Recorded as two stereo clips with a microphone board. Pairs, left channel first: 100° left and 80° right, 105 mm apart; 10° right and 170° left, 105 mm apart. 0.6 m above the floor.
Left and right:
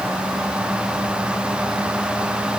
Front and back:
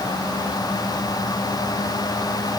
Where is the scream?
I don't hear a scream.